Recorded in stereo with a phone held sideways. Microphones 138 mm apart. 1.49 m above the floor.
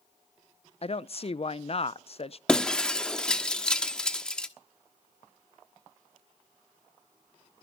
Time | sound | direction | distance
0.8 | a woman speaking | 45° left (ahead or behind) | 0.5 m
2.5 | breaking glass | 5° left (ahead or behind) | 1.1 m